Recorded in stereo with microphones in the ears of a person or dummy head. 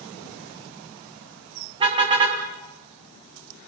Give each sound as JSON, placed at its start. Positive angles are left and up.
{"t": 1.8, "sound": "a car horn", "side_deg": -35, "distance_m": 4.0}